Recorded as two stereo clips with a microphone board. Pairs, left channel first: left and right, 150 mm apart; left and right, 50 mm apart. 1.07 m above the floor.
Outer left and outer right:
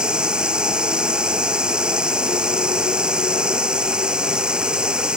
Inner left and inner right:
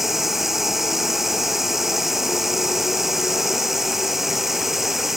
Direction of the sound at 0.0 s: 5° right (ahead or behind).